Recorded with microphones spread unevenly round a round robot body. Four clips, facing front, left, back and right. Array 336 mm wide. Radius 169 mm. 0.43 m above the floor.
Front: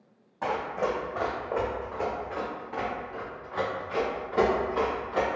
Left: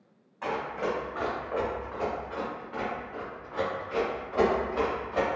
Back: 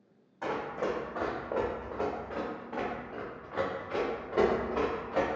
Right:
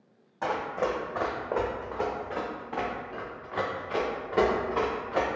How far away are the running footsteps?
About 1.4 m.